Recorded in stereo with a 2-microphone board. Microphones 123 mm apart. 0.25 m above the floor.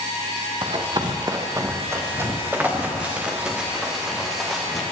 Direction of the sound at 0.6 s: 40° right (ahead or behind).